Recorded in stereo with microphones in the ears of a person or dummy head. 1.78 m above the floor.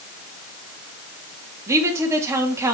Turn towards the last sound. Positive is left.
turn(degrees=-15)  # may be behind; listen again after turning